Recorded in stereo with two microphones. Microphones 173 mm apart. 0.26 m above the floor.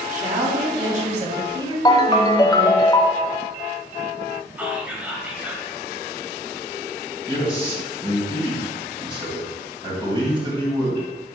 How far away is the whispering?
About 0.9 m.